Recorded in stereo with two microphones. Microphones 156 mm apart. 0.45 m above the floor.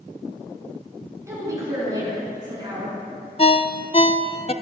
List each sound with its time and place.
1.3 s a woman speaking: 20° right (ahead or behind), 5.5 m; by 3.0 s 30° right (ahead or behind), 6 m
3.4 s a ringtone: 35° left (ahead or behind), 0.5 m